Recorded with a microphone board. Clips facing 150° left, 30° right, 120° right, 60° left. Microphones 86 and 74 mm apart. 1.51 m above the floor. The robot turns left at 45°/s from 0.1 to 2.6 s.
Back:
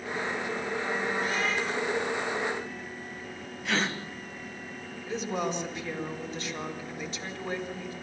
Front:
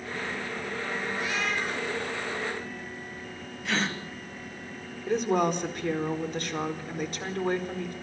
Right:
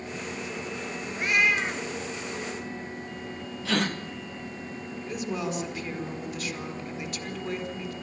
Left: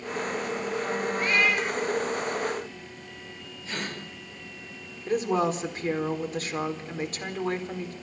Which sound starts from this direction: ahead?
A woman speaking, at 5.1 s.